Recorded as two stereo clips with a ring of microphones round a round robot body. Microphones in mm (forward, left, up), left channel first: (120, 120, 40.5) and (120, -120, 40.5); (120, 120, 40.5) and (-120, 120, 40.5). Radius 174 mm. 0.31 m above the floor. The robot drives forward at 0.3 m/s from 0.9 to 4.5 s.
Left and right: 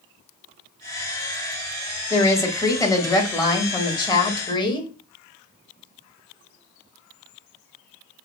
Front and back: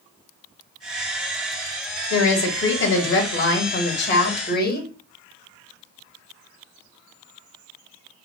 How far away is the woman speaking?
About 1.6 m.